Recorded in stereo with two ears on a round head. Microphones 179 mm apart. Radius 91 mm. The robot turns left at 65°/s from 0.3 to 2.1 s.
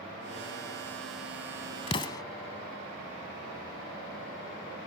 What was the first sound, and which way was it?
An explosion, 30° left (ahead or behind).